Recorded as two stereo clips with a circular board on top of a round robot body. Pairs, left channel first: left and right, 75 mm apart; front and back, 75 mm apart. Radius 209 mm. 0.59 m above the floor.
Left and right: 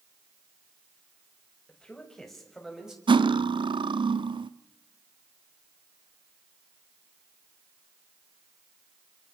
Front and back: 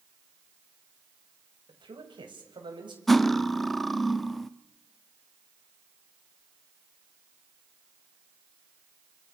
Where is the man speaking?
170° left, 6 m; by 3.0 s 170° right, 6 m.